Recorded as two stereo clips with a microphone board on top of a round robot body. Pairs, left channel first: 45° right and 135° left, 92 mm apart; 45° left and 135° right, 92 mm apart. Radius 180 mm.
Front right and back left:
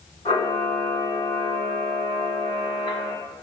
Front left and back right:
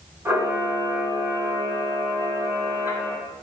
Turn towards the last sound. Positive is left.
turn(degrees=-65)